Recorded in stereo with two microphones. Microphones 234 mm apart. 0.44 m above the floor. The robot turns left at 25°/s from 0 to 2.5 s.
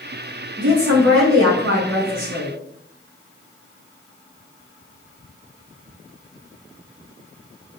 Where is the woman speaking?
75° right, 2.5 m; by 2.5 s 125° right, 2.5 m.